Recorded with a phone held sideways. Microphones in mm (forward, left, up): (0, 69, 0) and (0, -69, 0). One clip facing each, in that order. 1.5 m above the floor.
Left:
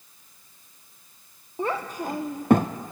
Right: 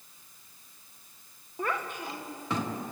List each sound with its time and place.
1.6 s a child speaking: 25° left (ahead or behind), 0.7 m; by 2.9 s 50° left (ahead or behind), 0.9 m